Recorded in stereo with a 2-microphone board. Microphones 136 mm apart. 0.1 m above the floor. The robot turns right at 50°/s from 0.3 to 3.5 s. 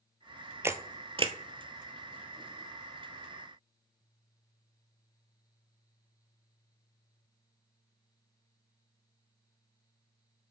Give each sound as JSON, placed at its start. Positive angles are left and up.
{"t": 0.6, "sound": "a camera shutter", "side_deg": -20, "distance_m": 0.5}